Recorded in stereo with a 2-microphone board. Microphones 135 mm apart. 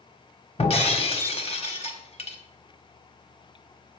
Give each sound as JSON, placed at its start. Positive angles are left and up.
{"t": 0.6, "sound": "breaking glass", "side_deg": 50, "distance_m": 1.4}